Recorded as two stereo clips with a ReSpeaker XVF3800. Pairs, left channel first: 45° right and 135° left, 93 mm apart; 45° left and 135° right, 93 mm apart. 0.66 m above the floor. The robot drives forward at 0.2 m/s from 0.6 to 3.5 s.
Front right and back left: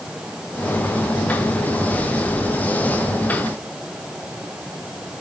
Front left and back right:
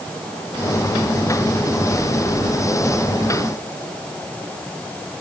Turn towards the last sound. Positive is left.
No sound to turn to.